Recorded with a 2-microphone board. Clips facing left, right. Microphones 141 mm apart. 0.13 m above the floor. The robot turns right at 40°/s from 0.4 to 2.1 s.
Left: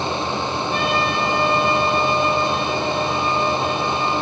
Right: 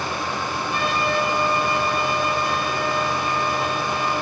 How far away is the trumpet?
About 4 m.